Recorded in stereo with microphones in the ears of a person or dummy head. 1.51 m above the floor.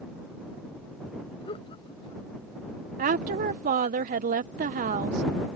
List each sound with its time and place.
1.4 s laughter: 30° left (ahead or behind)
3.0 s a woman speaking: 50° right (ahead or behind)